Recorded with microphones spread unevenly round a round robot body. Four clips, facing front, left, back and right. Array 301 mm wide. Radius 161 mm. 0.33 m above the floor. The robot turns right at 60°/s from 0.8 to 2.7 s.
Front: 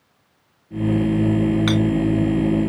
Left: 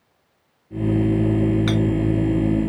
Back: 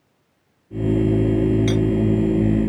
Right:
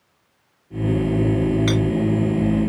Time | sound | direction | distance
1.7 | a clink | 20° right | 3 m